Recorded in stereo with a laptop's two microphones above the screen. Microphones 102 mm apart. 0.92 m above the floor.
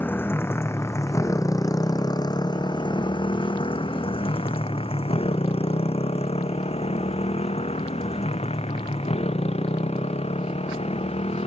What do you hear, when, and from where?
0.0 s a motorcycle: 20° left (ahead or behind); by 11.5 s 80° left